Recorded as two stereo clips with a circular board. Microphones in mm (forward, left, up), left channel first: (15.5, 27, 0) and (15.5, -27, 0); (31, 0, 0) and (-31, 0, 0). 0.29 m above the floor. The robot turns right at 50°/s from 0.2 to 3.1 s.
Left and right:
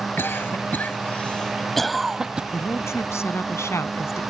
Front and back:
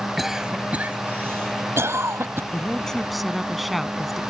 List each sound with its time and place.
0.2 s a cough: 95° left; by 2.4 s 155° right
2.5 s a woman speaking: 65° left; by 4.2 s 90° left